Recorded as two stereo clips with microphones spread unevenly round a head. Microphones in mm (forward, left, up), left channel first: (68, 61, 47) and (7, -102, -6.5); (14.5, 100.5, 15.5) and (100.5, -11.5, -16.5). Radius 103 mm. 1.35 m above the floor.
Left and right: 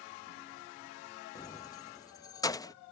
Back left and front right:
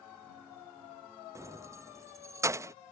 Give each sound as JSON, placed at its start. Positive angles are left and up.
{"t": 1.4, "sound": "keys jangling", "azimuth_deg": 25}